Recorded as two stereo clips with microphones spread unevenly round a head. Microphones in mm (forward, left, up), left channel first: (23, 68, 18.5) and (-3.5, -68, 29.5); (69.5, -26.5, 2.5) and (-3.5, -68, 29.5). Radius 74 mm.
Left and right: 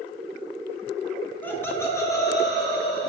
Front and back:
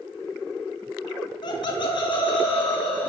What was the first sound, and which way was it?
Laughter, straight ahead.